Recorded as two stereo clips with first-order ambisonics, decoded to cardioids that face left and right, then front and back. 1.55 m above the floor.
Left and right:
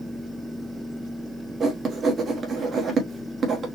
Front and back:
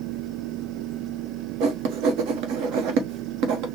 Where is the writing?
155° right, 1.0 m.